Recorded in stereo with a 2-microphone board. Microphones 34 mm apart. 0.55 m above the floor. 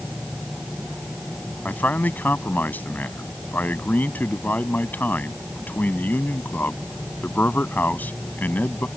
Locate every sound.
1.6 s a man speaking: 65° left (ahead or behind)